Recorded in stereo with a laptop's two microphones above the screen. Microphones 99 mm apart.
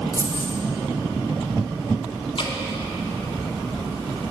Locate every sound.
0.1 s keys jangling: 30° left (ahead or behind), 0.9 m
2.4 s dripping: 60° left (ahead or behind), 1.3 m